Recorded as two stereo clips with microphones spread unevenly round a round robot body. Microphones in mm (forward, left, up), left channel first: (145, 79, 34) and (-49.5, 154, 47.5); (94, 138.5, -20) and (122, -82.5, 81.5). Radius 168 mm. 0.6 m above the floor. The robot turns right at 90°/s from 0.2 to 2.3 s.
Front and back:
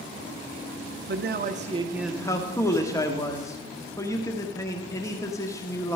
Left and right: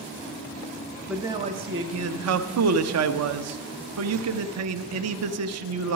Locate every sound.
1.1 s a man speaking: 165° left, 1.1 m; by 6.0 s 90° right, 1.1 m